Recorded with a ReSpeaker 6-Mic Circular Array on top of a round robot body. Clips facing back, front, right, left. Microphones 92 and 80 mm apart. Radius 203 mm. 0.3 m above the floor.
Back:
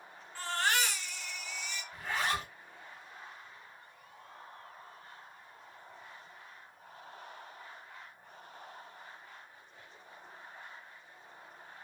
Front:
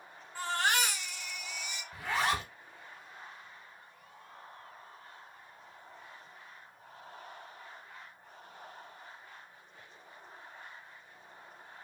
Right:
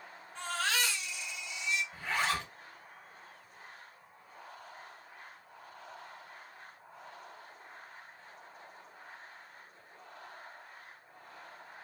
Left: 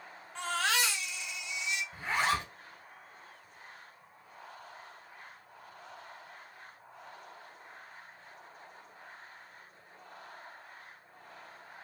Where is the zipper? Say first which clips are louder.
Front 3 dB, left 5 dB; 25° left, 0.6 m.